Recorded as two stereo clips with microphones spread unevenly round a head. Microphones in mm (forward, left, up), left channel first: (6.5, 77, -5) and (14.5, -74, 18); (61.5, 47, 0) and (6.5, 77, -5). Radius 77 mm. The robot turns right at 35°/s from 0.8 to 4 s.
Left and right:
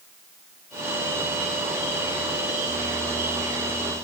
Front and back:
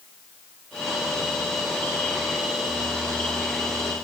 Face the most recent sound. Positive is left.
No sound to turn to.